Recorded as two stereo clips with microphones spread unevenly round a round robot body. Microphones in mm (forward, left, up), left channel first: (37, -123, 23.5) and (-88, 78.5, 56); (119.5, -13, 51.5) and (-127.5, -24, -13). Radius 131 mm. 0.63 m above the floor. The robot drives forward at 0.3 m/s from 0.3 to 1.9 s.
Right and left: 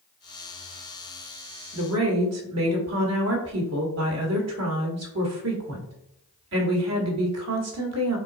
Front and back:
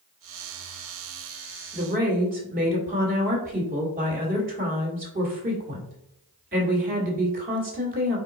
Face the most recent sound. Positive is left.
turn(degrees=140)